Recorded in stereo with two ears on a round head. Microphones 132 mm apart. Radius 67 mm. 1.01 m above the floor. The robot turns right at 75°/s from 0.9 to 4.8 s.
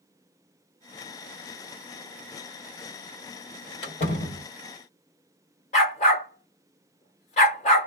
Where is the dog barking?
50° left (ahead or behind), 1.4 m.